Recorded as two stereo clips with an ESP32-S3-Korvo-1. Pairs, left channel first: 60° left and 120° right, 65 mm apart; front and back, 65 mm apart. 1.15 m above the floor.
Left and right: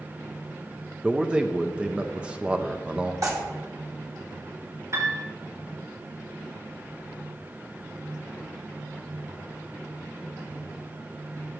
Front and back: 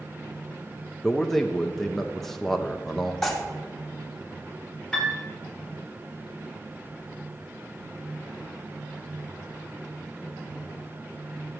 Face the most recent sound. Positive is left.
turn(degrees=-85)